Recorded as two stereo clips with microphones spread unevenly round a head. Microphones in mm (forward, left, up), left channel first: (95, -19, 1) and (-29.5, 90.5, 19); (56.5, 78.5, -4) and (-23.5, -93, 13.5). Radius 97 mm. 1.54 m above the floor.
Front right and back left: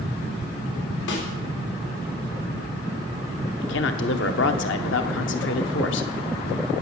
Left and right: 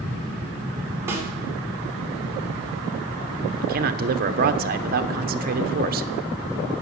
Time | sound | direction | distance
1.1 | a snare drum | 40° right | 3.5 m
3.6 | a man speaking | 70° right | 1.0 m